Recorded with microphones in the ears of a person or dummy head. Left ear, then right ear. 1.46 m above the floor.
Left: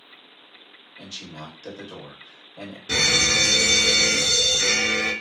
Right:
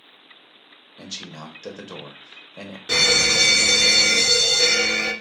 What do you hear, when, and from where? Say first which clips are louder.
1.0 s a man speaking: right 2 dB; 80° right, 1.0 m
2.9 s a fire alarm: right 2 dB; 40° right (ahead or behind), 1.2 m